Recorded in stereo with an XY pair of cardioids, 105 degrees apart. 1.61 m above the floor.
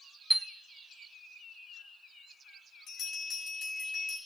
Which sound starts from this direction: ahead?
A chime, at 0.3 s.